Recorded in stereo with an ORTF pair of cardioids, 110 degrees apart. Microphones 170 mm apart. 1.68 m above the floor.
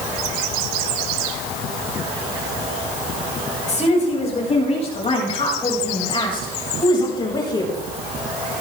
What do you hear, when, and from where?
3.7 s a woman speaking: 45° left, 7.5 m; by 7.7 s 25° left, 7 m